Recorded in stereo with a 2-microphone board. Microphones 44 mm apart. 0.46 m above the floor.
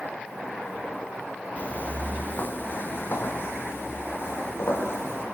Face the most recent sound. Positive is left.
turn(degrees=70)  # may be behind; listen again after turning